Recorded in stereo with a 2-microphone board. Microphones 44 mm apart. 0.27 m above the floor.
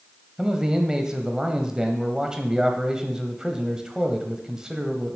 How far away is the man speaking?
About 1.0 m.